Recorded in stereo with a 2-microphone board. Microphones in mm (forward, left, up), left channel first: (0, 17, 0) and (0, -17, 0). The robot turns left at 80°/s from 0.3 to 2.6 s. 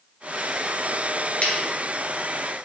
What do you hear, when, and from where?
1.4 s scissors: 45° left (ahead or behind), 1.8 m; by 2.6 s 40° left (ahead or behind), 1.8 m